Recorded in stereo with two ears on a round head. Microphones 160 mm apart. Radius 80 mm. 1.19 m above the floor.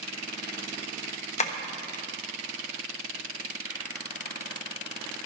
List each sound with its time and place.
1.4 s tapping: 40° left (ahead or behind), 1.1 m